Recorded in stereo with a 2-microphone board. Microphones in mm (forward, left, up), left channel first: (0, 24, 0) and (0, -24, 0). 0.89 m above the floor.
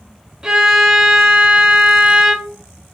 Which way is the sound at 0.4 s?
10° right (ahead or behind).